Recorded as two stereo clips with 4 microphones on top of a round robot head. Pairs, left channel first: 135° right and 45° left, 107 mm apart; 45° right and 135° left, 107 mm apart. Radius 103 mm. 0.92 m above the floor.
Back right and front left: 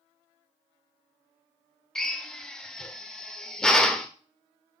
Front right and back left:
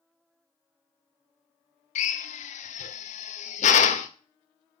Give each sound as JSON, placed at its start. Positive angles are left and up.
{"t": 1.9, "sound": "a drill", "azimuth_deg": -50, "distance_m": 0.9}